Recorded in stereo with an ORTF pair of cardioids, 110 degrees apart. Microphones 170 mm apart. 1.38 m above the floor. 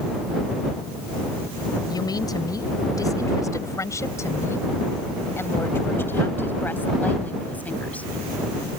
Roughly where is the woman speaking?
Ahead.